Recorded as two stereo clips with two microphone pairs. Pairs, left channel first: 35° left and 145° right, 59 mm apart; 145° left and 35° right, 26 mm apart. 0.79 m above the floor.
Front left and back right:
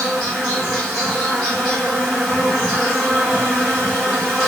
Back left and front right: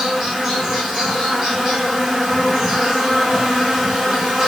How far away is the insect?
About 1.7 m.